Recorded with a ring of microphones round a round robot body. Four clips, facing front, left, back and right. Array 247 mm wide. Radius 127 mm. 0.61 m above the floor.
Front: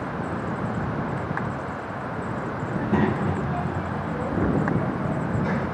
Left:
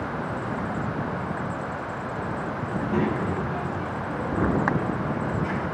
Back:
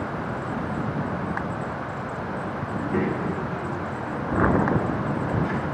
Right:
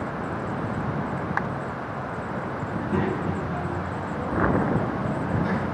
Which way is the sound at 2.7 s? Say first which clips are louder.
Left 1 dB, front 3 dB; straight ahead.